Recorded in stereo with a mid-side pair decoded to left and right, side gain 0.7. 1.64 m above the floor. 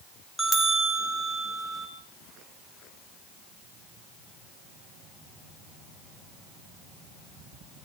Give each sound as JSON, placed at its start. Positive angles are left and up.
{"t": 0.4, "sound": "a bell", "azimuth_deg": -10, "distance_m": 4.5}